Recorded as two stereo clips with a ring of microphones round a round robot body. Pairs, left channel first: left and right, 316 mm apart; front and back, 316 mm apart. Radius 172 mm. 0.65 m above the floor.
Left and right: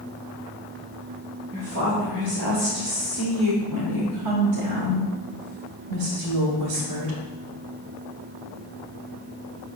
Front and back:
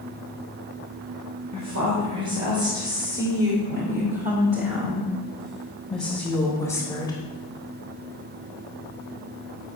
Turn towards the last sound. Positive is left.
turn(degrees=-75)